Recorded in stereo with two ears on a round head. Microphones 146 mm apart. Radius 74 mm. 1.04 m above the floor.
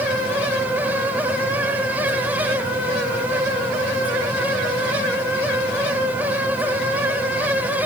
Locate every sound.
Only background noise.